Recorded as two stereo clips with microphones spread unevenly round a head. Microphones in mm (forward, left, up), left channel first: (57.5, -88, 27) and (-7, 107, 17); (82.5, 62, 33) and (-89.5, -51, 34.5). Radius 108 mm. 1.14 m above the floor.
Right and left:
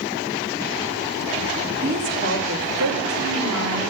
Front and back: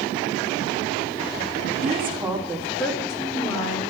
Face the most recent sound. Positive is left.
turn(degrees=100)